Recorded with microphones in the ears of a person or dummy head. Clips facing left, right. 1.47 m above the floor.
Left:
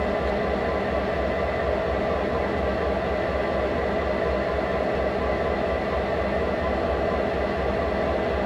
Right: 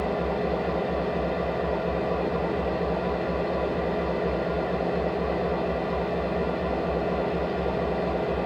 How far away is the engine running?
About 1.5 m.